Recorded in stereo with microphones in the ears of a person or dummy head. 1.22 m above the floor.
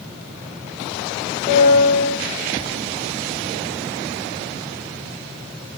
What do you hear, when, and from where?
1.5 s a piano: 25° left (ahead or behind), 4 m